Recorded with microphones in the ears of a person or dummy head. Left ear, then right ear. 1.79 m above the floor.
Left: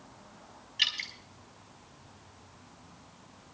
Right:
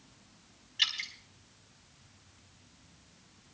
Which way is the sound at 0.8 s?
10° left (ahead or behind).